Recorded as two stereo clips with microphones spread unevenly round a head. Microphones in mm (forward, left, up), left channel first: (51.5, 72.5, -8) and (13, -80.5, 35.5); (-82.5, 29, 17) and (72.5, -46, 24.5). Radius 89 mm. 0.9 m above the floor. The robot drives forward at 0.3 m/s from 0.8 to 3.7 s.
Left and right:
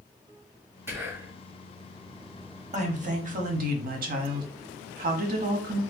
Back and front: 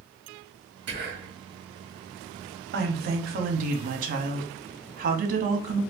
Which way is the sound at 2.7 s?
55° right.